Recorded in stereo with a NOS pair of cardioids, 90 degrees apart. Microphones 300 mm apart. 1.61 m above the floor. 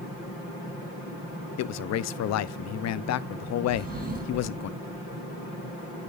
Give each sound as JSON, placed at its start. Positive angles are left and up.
{"t": 1.6, "sound": "a man speaking", "azimuth_deg": 60, "distance_m": 0.6}
{"t": 3.7, "sound": "a drawer", "azimuth_deg": -30, "distance_m": 8.0}